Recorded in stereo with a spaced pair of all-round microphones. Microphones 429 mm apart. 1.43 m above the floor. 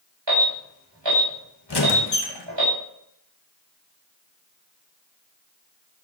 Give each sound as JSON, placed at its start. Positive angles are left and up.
{"t": 0.3, "sound": "an alarm", "side_deg": -75, "distance_m": 4.5}
{"t": 1.7, "sound": "a squeak", "side_deg": 65, "distance_m": 1.2}